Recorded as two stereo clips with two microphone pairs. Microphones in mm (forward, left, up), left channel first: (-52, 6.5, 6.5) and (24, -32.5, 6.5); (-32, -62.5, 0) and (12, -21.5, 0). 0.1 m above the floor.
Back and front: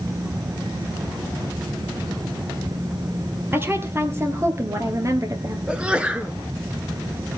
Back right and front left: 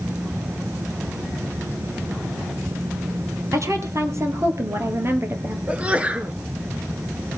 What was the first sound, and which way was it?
A woman speaking, 30° left.